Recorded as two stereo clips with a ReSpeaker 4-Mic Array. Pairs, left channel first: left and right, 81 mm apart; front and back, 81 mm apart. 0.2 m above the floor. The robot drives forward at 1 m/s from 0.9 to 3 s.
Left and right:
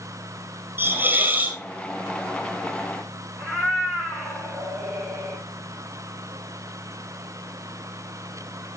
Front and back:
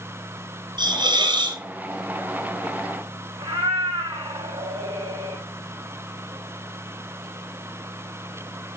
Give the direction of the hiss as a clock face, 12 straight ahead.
5 o'clock.